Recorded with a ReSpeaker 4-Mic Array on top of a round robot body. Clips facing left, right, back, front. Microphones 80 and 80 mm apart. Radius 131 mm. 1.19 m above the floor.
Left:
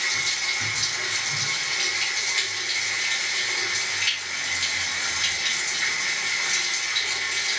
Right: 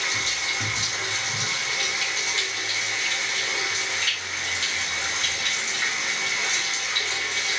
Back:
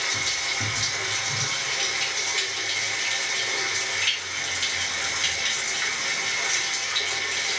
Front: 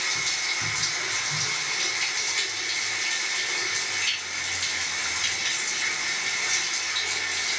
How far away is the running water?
About 4.5 m.